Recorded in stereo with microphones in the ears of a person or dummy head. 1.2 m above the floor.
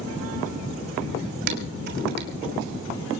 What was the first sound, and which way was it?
Dishes clattering, 55° right (ahead or behind).